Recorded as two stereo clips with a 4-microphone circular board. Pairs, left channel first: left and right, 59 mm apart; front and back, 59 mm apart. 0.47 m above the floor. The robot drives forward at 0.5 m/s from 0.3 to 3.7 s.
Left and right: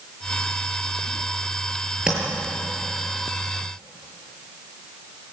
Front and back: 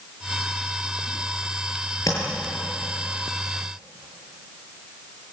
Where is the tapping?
15° right, 7.5 m.